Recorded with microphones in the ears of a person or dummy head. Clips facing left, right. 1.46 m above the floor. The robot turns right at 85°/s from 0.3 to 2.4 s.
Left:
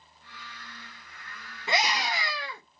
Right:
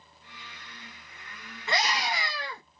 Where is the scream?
155° left, 1.6 m; by 2.6 s 140° right, 1.6 m.